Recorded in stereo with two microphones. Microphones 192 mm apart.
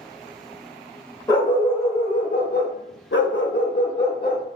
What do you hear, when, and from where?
1.3 s a dog barking: 20° left (ahead or behind), 1.0 m; by 4.5 s 50° left (ahead or behind), 1.0 m